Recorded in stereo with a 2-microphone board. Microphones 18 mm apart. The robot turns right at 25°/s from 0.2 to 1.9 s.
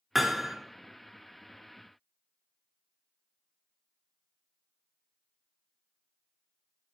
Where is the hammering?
15° right (ahead or behind), 1.1 m; by 0.6 s 20° right (ahead or behind), 1.1 m.